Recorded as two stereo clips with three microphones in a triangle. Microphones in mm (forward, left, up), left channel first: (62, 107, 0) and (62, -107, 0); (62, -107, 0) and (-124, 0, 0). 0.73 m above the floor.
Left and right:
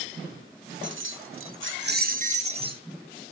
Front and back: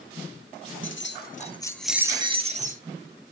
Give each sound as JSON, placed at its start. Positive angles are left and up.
{"t": 0.8, "sound": "keys jangling", "azimuth_deg": -55, "distance_m": 0.7}